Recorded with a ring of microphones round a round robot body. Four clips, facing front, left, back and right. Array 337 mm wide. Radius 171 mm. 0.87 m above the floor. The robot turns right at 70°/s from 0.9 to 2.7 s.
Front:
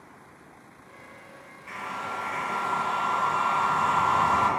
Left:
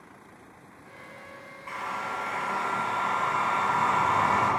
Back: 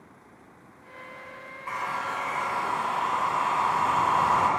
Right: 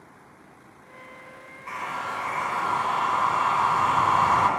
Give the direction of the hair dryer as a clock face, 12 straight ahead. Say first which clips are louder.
Right 2 dB, back 4 dB; 6 o'clock.